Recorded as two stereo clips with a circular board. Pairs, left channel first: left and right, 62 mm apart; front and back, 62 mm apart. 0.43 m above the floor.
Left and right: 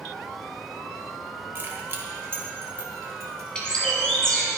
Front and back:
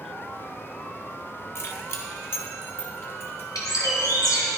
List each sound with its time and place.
1.6 s keys jangling: 40° right, 1.6 m; by 3.5 s 50° right, 3 m
3.5 s a bird: 15° left, 3 m